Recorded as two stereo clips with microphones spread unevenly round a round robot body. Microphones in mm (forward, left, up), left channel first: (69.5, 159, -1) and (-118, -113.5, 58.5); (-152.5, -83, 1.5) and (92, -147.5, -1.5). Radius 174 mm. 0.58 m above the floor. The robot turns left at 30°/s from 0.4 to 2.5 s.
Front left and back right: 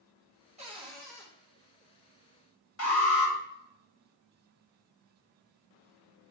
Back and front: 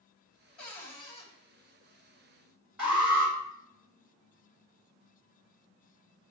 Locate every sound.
0.6 s a cupboard door: 165° left, 2.5 m; by 1.3 s 140° left, 2.5 m
2.8 s an alarm: 75° left, 3 m